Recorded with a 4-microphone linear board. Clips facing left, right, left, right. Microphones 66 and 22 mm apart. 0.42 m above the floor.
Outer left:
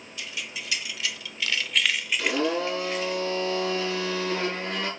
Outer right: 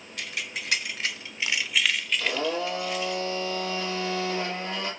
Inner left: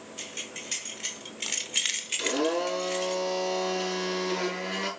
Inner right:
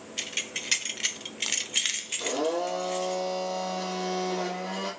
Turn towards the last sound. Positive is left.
turn(degrees=65)  # may be behind; listen again after turning